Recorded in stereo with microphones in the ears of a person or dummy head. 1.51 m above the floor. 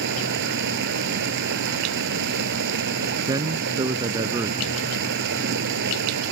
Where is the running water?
65° right (ahead or behind).